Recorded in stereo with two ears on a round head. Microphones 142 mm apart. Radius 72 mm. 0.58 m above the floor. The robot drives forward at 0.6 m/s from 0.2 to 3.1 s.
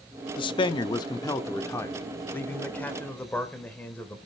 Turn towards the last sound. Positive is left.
turn(degrees=10)  # may be behind; listen again after turning